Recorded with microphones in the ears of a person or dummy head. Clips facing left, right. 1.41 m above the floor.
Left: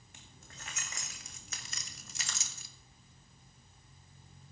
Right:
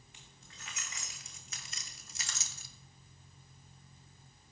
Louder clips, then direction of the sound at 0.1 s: Left 5 dB; 35° left (ahead or behind).